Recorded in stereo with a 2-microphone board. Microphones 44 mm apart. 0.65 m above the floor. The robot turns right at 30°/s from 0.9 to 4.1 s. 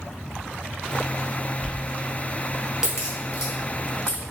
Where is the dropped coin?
20° left (ahead or behind), 1.3 m; by 2.9 s 15° right (ahead or behind), 1.3 m.